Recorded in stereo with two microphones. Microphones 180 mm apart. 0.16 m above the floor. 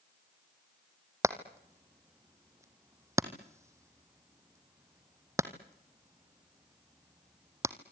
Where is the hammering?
15° right (ahead or behind), 1.6 m.